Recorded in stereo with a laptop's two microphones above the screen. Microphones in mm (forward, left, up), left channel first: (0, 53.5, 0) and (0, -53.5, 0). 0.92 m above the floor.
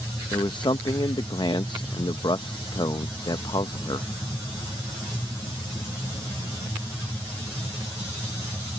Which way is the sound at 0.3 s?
45° left (ahead or behind).